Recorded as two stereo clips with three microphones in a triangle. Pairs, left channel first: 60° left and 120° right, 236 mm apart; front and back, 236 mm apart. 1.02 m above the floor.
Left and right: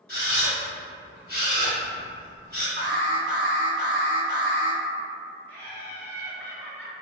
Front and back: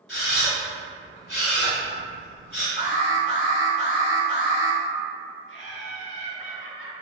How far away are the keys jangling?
I don't hear keys jangling.